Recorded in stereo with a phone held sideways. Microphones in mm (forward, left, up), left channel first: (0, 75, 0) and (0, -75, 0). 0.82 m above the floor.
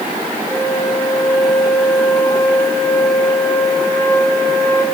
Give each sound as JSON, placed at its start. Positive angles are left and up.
{"t": 0.5, "sound": "a flute", "side_deg": 15, "distance_m": 3.0}